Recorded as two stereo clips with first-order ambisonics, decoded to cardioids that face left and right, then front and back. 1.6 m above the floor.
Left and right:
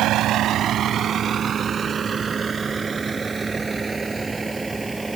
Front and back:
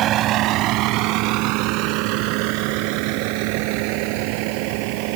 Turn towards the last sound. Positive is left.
turn(degrees=-170)